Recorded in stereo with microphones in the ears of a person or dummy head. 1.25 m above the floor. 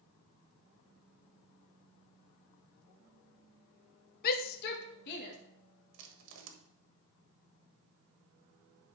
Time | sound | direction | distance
4.2 | a shout | 50° left (ahead or behind) | 0.6 m
5.9 | crushing | 70° right (ahead or behind) | 1.4 m